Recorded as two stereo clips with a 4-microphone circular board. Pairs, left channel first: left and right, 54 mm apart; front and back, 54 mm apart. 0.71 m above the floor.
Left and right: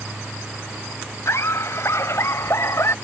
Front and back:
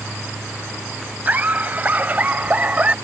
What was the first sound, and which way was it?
Laughter, 120° left.